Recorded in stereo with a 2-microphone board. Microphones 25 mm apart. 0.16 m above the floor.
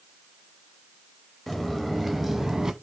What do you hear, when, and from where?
1.5 s footsteps: 10° left (ahead or behind), 2 m; by 2.7 s 20° right (ahead or behind), 1.1 m